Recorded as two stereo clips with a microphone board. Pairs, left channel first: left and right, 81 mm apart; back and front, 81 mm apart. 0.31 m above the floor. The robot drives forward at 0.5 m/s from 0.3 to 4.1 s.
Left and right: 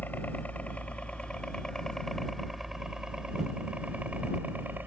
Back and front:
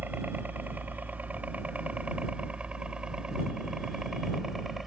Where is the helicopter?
45° left; by 4.9 s 80° right.